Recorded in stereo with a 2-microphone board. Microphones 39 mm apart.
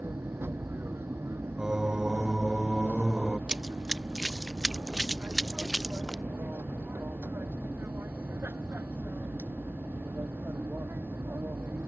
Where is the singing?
15° right (ahead or behind).